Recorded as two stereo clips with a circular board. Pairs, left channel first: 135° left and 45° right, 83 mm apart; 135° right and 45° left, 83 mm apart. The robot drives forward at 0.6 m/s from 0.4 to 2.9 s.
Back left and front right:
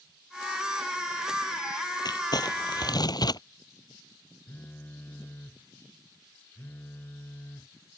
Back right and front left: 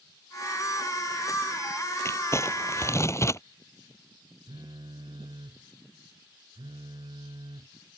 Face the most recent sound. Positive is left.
turn(degrees=70)